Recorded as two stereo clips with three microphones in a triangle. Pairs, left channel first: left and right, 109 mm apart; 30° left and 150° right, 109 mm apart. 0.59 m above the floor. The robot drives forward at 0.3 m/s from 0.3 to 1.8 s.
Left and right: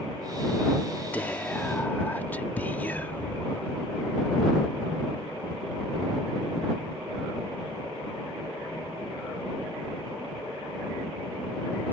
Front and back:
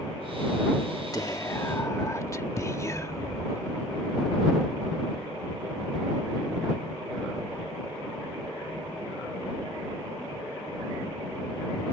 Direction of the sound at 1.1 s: 30° left.